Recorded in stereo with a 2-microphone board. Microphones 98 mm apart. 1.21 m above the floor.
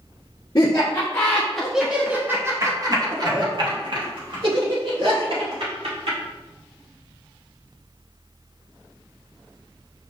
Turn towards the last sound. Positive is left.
turn(degrees=-70)  # may be behind; listen again after turning